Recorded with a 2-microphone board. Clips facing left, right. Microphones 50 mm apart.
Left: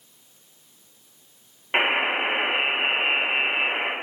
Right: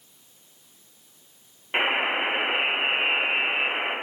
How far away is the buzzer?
About 0.7 m.